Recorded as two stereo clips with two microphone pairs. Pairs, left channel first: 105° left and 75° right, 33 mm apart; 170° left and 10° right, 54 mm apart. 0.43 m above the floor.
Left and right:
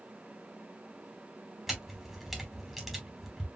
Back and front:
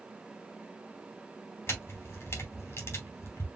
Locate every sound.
1.7 s a camera shutter: 160° right, 2.5 m